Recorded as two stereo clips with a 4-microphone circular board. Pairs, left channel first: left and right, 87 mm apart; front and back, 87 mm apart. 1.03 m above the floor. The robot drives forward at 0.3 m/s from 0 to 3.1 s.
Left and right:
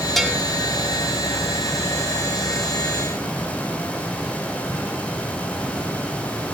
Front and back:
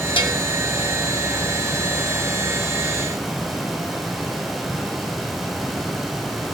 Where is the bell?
Straight ahead, 1.3 m.